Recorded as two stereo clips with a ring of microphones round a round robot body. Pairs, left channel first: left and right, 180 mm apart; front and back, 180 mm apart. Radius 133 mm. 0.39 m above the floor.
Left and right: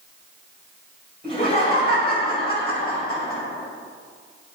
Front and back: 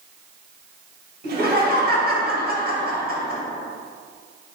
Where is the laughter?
175° left, 2.5 m.